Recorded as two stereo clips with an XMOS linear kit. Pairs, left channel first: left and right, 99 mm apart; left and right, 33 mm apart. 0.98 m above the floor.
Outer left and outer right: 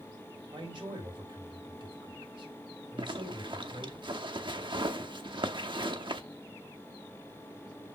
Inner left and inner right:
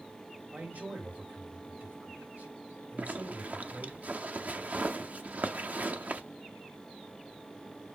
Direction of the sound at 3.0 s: 55° right (ahead or behind).